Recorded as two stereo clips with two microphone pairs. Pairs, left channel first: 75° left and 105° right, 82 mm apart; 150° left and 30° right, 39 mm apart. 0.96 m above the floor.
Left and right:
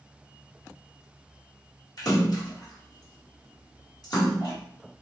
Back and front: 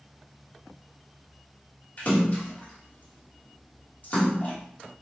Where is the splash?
105° left, 1.4 m.